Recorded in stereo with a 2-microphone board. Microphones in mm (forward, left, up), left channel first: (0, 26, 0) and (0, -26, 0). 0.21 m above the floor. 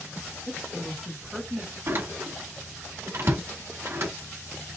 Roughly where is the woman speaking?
Centre.